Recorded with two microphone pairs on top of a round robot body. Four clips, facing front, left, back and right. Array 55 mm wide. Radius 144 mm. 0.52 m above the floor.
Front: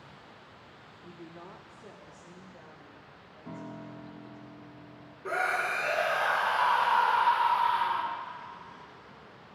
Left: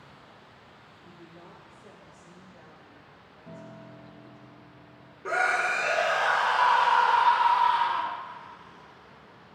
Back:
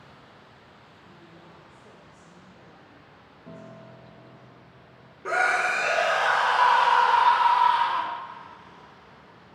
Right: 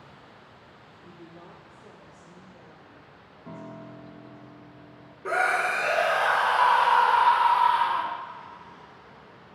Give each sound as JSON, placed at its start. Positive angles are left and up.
{"t": 1.0, "sound": "a woman speaking", "azimuth_deg": -30, "distance_m": 0.9}
{"t": 3.5, "sound": "a piano", "azimuth_deg": -55, "distance_m": 0.8}
{"t": 5.2, "sound": "a scream", "azimuth_deg": -165, "distance_m": 0.6}